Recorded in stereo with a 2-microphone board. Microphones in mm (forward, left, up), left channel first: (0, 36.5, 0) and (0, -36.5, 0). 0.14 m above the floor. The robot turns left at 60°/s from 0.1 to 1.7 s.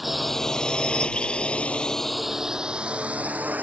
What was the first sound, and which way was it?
A drone, centre (ahead or behind).